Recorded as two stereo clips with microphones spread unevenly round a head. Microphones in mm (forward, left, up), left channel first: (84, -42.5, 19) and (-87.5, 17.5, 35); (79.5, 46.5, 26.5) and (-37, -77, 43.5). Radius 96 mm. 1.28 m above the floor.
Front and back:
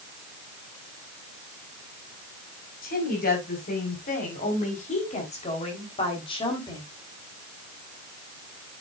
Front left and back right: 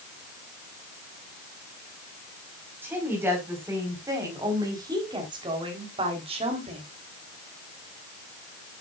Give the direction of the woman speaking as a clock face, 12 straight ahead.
2 o'clock.